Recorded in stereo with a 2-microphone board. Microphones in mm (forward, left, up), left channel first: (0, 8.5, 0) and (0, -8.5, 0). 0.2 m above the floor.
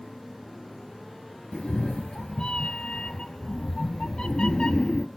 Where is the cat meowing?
60° left (ahead or behind), 0.5 m.